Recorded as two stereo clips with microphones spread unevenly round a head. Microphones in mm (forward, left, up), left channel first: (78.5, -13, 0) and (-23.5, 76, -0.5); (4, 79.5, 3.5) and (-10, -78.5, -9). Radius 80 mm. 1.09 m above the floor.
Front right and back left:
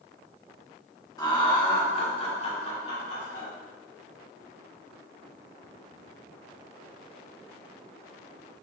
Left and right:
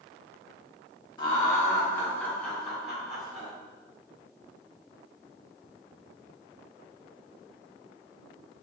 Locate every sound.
1.2 s laughter: 20° left, 1.9 m; by 3.5 s 10° right, 3 m